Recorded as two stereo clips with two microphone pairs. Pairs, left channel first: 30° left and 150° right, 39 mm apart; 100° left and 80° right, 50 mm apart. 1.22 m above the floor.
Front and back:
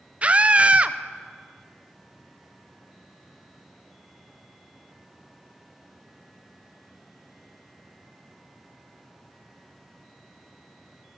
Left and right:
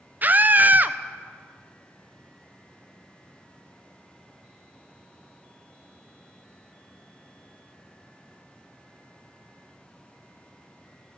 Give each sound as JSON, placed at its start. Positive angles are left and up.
{"t": 0.2, "sound": "a scream", "azimuth_deg": -115, "distance_m": 0.5}